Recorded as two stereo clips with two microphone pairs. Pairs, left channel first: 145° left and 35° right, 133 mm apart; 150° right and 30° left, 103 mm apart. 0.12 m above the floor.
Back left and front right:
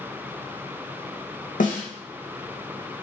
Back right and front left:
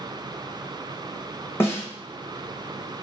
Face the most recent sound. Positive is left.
turn(degrees=140)